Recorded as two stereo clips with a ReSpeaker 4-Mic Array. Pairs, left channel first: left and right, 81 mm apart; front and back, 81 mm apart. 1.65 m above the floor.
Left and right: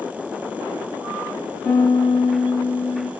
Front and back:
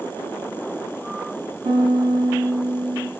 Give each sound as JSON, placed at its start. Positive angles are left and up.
{"t": 1.6, "sound": "a piano", "azimuth_deg": 160, "distance_m": 4.5}